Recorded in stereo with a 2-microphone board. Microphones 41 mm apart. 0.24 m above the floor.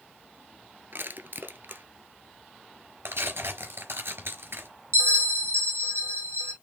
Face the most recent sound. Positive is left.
turn(degrees=-80)